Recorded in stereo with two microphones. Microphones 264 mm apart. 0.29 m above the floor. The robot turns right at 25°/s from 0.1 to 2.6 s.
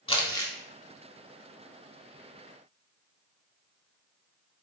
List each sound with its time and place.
0.1 s crumpling: 20° left (ahead or behind), 0.6 m; by 0.5 s 10° left (ahead or behind), 0.6 m